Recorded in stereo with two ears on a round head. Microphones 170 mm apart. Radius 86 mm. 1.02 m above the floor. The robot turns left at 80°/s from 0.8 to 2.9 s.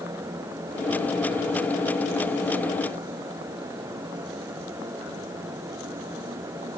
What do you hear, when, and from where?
Only background noise.